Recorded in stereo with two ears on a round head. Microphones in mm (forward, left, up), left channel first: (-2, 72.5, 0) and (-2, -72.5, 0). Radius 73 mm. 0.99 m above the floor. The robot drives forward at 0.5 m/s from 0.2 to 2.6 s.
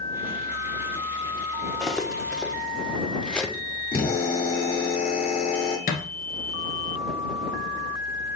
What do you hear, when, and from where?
1.8 s cutlery clinking: 5° left (ahead or behind), 1.0 m
3.9 s a drill: 35° left (ahead or behind), 2.5 m
5.9 s a thud: 55° left (ahead or behind), 1.6 m